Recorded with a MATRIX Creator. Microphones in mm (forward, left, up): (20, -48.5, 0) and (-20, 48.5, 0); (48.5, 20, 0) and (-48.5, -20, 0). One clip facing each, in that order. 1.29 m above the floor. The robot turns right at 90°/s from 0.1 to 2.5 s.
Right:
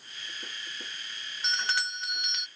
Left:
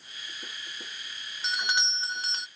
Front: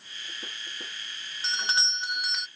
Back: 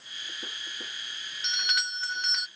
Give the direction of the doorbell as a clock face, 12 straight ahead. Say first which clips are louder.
Left 1 dB, front 3 dB; 11 o'clock.